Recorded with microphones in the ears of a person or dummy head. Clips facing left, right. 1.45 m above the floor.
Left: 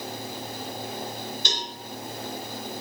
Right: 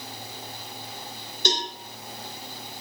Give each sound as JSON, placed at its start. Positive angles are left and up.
{"t": 1.4, "sound": "a cowbell", "side_deg": -50, "distance_m": 3.5}